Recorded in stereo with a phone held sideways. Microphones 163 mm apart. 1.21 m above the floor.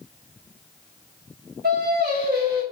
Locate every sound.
1.6 s singing: 75° right (ahead or behind), 4.5 m